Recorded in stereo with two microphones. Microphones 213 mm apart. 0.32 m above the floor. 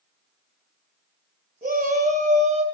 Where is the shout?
45° right (ahead or behind), 2 m; by 2.6 s 35° right (ahead or behind), 1.7 m.